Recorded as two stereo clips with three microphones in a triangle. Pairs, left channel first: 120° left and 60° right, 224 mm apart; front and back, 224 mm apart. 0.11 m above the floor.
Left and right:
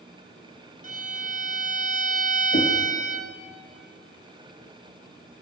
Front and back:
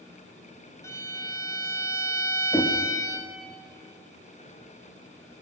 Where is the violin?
70° right, 1.4 m.